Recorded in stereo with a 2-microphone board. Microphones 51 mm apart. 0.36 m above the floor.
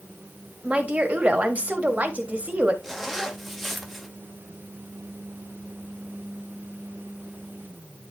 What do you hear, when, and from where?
0.6 s a woman speaking: 30° right (ahead or behind), 1.5 m
2.8 s a zipper: centre (ahead or behind), 1.2 m